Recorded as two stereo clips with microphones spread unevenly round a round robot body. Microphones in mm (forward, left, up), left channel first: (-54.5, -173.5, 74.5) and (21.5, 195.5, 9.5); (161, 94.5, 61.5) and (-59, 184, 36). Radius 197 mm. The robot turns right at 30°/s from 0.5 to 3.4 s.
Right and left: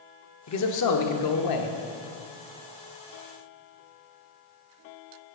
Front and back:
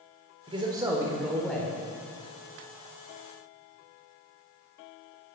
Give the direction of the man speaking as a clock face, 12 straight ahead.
5 o'clock.